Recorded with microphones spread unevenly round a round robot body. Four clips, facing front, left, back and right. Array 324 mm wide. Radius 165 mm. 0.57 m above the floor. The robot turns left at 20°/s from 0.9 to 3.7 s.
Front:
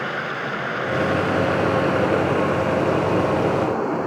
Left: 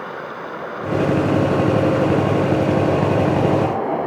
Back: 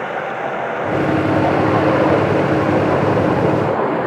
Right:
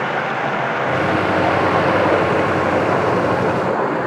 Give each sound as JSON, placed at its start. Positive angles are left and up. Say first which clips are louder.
{"t": 0.0, "sound": "running water", "louder": "right 9 dB, back 5 dB", "azimuth_deg": -85}